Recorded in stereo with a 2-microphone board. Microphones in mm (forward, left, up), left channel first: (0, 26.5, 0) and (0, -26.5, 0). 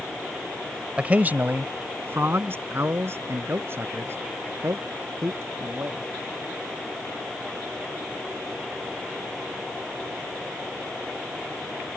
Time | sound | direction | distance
1.0 | a man speaking | 25° right (ahead or behind) | ?